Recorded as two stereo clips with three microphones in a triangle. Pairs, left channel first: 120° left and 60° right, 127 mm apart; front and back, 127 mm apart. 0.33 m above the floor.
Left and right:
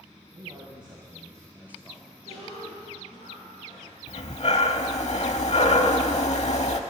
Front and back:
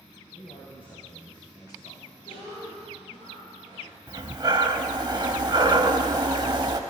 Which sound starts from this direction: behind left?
Breathing, at 4.1 s.